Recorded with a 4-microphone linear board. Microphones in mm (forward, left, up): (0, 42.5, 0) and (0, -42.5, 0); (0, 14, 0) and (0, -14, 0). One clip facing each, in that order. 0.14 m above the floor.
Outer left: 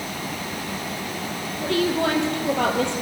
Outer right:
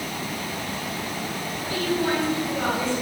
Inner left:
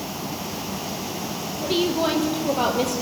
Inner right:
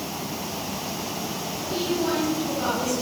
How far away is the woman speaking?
About 4 m.